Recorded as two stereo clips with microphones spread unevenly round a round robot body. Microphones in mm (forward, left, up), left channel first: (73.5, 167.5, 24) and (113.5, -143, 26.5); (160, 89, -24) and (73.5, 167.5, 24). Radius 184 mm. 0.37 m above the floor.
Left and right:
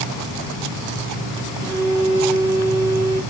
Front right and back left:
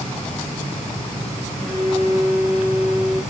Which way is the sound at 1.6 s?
155° right.